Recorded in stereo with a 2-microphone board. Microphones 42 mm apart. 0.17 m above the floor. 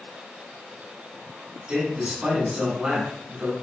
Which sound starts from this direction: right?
A man speaking, at 1.7 s.